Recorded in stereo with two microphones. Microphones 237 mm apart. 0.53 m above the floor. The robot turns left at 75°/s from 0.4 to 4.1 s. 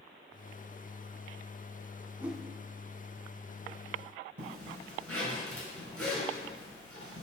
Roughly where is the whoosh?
Centre.